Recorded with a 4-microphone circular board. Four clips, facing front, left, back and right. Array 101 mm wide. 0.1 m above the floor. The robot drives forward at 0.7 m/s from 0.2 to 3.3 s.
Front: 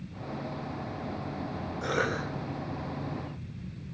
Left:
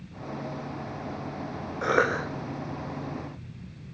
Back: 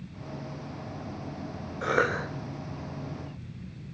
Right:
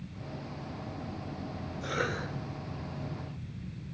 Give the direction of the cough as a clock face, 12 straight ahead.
8 o'clock.